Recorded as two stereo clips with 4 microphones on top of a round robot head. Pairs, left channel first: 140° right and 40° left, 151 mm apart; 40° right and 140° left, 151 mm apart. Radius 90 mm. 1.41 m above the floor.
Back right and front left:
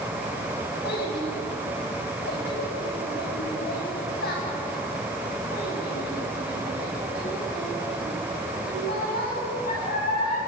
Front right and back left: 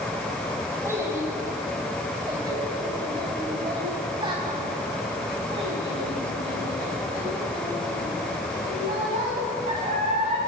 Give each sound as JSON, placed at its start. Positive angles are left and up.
{"t": 0.8, "sound": "a child speaking", "azimuth_deg": -145, "distance_m": 6.5}